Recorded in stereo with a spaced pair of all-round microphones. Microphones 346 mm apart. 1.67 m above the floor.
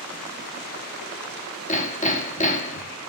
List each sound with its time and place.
1.7 s hammering: 20° left (ahead or behind), 3.5 m